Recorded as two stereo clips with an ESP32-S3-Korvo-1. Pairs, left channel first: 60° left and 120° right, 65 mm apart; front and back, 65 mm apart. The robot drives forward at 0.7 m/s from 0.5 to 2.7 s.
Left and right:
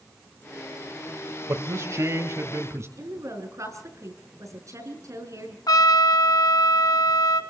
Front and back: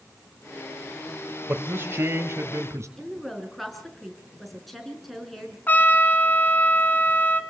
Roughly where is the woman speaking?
Right.